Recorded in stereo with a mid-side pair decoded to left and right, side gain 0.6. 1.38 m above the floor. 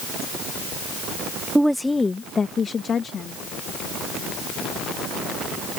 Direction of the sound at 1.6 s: 10° right.